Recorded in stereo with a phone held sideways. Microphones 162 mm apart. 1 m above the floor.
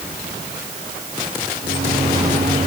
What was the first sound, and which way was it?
A microwave, 75° right (ahead or behind).